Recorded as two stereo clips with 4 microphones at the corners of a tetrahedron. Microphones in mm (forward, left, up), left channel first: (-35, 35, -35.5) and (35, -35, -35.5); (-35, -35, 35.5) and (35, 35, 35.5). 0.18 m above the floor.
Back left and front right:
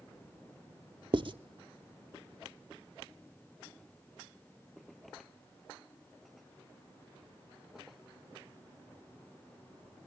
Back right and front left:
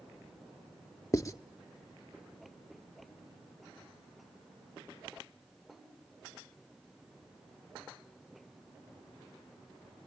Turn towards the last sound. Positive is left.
turn(degrees=-80)